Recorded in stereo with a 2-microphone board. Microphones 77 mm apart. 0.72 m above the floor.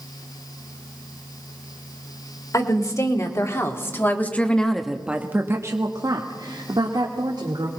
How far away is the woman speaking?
About 3 m.